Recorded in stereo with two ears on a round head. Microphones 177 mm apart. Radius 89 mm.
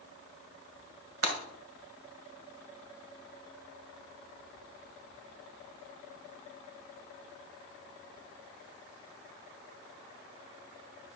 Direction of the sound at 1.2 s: 75° right (ahead or behind).